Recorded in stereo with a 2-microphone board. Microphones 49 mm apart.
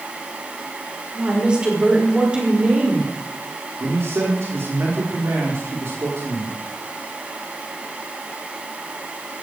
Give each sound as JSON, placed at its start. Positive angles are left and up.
{"t": 1.1, "sound": "a woman speaking", "side_deg": -15, "distance_m": 5.5}
{"t": 3.8, "sound": "a man speaking", "side_deg": -60, "distance_m": 4.0}